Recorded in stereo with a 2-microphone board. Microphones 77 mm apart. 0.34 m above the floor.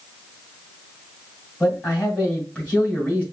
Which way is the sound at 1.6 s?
20° left (ahead or behind).